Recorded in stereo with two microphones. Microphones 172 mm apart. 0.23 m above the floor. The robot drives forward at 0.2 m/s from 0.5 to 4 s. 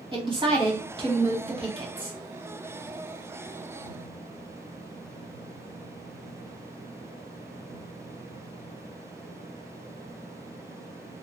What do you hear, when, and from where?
0.1 s a woman speaking: 30° right (ahead or behind), 1.2 m